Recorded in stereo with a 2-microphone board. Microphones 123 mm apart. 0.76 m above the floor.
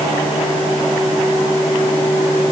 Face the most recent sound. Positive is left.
No sound to turn to.